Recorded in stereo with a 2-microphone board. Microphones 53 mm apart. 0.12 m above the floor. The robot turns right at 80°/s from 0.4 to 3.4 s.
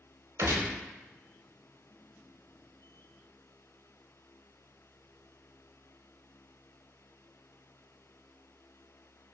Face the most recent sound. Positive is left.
turn(degrees=130)